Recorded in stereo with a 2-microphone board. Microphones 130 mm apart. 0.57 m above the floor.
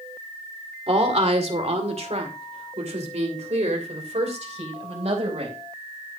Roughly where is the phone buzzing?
No phone buzzing in this recording.